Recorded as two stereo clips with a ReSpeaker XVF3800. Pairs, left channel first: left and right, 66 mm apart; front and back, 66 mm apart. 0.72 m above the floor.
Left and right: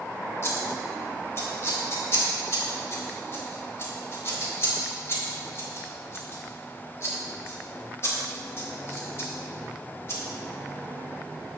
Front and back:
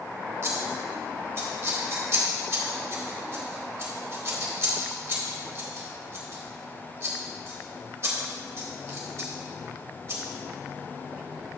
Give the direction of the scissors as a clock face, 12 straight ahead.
7 o'clock.